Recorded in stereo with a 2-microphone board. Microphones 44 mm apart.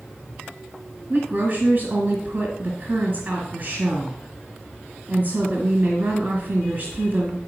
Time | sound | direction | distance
1.1 | a woman speaking | 45° right (ahead or behind) | 1.7 m